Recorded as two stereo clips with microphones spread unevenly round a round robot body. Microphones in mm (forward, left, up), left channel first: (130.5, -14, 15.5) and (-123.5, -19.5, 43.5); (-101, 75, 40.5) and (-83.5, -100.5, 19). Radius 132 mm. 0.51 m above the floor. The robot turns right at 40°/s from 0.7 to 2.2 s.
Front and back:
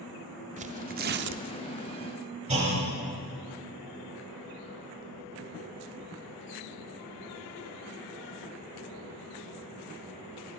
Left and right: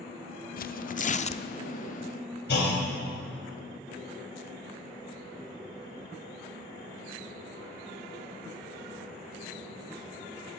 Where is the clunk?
115° left, 3 m.